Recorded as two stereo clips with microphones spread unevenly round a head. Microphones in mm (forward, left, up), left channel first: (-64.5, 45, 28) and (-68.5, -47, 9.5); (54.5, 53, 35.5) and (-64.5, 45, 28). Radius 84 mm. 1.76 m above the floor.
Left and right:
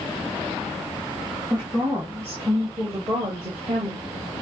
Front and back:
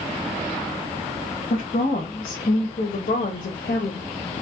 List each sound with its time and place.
1.5 s a woman speaking: 5° right, 1.9 m; by 4.0 s 40° right, 0.9 m